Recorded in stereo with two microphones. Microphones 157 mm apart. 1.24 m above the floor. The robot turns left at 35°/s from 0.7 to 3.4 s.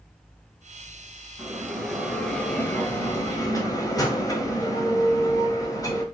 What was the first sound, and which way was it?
A bell, 160° right.